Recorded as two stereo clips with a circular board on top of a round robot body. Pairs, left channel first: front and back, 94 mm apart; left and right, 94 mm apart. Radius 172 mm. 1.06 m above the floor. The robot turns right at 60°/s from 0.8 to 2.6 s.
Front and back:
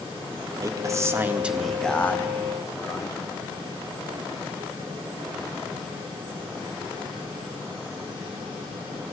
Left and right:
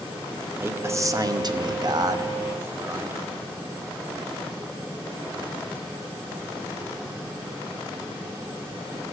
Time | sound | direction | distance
0.6 | a man speaking | 145° right | 0.8 m